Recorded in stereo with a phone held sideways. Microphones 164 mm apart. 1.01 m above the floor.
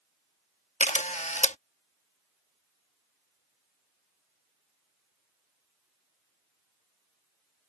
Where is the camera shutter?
45° left (ahead or behind).